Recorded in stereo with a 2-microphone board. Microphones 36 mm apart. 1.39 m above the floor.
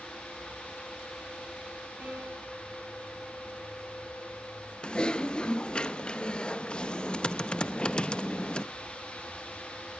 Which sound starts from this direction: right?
A piano, at 2.0 s.